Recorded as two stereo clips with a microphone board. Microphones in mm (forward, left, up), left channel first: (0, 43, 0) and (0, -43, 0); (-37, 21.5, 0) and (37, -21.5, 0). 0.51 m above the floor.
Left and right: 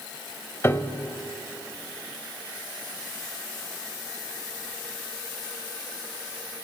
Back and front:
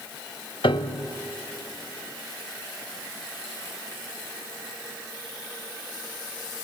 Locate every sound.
0.6 s a piano: 150° left, 0.9 m